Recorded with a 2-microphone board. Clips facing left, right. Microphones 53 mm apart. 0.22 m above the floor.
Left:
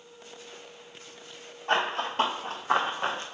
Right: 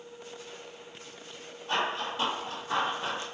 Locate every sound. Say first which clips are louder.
1.7 s running footsteps: left 3 dB; 60° left (ahead or behind), 3 m; by 3.2 s 40° left (ahead or behind), 1.0 m